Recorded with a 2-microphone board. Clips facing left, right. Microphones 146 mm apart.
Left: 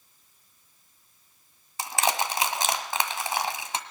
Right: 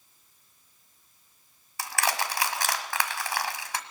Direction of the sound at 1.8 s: 20° left (ahead or behind).